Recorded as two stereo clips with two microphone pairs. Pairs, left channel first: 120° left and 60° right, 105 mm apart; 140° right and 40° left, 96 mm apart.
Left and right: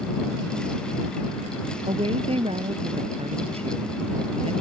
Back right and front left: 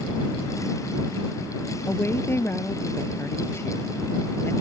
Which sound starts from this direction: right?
A woman speaking, at 1.9 s.